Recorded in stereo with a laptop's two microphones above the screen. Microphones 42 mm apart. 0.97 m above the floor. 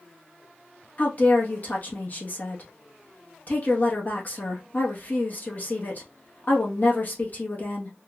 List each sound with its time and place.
1.0 s a woman speaking: 40° left (ahead or behind), 1.5 m